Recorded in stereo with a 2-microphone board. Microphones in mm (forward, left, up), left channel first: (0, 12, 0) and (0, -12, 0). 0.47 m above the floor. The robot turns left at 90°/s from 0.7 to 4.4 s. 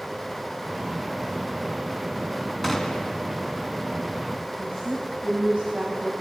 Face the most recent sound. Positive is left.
turn(degrees=-40)  # may be behind; listen again after turning